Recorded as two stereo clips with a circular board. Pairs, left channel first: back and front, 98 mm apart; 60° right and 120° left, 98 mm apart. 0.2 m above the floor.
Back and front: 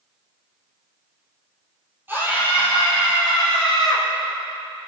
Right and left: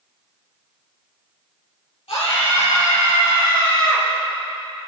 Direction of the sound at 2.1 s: 70° right.